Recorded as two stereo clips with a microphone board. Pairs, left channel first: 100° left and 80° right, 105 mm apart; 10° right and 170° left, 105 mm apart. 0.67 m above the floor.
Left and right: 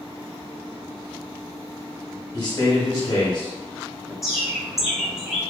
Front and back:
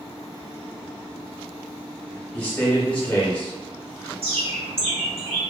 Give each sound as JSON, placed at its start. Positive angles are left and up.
{"t": 2.3, "sound": "a man speaking", "azimuth_deg": 60, "distance_m": 1.0}
{"t": 4.2, "sound": "a bird", "azimuth_deg": -165, "distance_m": 0.8}